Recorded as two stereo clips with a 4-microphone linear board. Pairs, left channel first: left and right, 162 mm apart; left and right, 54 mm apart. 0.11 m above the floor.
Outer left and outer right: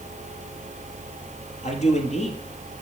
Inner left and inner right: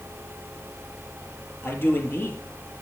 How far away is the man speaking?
About 3 m.